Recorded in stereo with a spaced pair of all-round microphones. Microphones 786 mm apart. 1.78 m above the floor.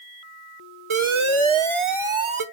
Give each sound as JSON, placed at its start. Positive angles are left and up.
{"t": 0.9, "sound": "an alarm", "side_deg": -40, "distance_m": 0.8}